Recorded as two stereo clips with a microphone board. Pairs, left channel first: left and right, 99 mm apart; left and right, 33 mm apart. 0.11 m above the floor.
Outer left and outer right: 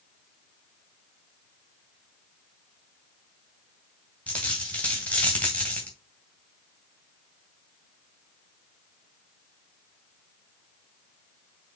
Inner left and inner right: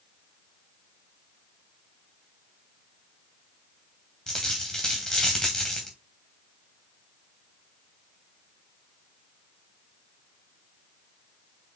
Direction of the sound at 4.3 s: 15° left (ahead or behind).